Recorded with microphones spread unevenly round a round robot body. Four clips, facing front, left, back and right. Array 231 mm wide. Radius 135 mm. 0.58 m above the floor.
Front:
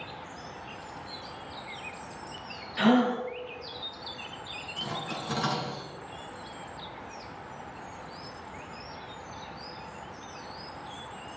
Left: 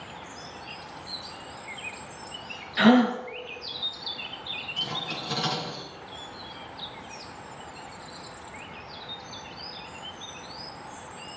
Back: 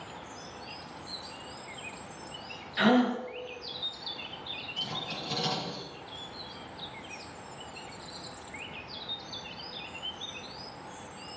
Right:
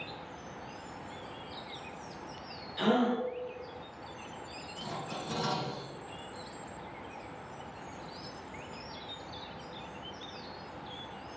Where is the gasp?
90° left, 3.5 m.